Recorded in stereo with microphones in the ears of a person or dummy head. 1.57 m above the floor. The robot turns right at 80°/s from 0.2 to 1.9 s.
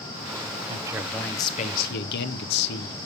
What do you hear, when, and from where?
0.7 s a man speaking: 35° right, 1.2 m; by 3.0 s 60° left, 1.2 m